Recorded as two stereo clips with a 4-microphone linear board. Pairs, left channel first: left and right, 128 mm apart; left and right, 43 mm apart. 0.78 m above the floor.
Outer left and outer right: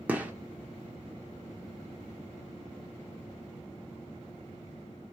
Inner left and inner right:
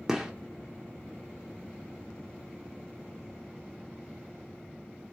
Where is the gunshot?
10° right (ahead or behind), 0.9 m.